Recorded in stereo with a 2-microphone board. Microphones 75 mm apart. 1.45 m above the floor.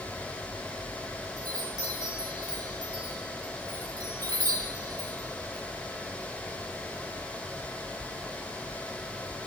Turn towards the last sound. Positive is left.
turn(degrees=-60)  # may be behind; listen again after turning